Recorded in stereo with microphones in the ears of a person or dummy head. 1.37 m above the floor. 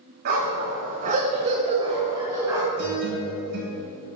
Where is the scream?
I don't hear a scream.